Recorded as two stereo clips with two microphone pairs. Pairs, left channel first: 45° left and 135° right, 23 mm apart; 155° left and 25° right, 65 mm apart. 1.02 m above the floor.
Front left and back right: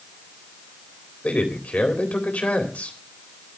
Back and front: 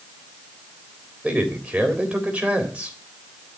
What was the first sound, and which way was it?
A man speaking, 45° left.